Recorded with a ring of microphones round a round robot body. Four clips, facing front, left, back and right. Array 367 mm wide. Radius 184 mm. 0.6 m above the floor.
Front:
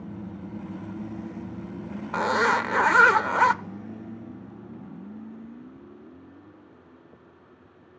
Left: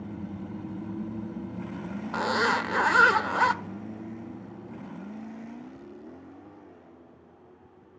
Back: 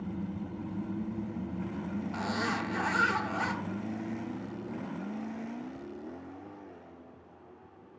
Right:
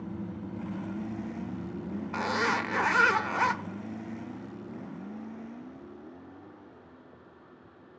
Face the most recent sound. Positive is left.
turn(degrees=15)